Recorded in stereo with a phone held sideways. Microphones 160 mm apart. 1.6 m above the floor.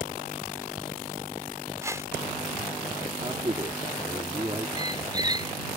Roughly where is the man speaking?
Right.